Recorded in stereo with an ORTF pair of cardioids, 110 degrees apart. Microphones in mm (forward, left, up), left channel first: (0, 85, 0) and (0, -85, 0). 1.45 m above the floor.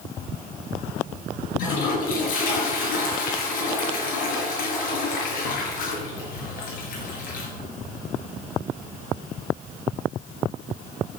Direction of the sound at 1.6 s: 55° left.